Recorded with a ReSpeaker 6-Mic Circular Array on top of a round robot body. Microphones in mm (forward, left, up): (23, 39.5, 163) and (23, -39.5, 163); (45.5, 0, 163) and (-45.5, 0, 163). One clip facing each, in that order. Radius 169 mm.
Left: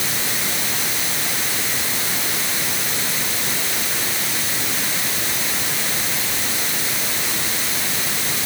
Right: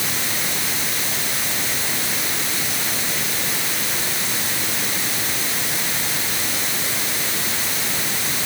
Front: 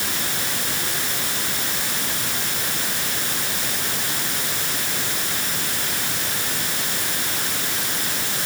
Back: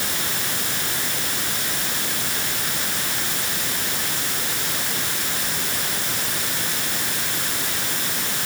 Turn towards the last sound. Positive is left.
No sound to turn to.